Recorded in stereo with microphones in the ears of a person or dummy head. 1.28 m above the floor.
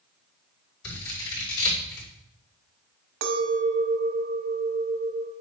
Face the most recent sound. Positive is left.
turn(degrees=-65)  # may be behind; listen again after turning